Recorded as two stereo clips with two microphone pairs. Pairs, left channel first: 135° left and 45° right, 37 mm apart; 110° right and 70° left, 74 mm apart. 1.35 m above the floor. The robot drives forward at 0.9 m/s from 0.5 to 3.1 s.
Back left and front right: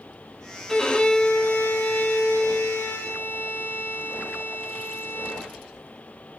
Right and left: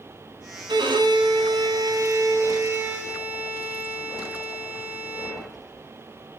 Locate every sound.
0.7 s a violin: 65° left, 1.5 m; by 5.5 s 135° left, 2 m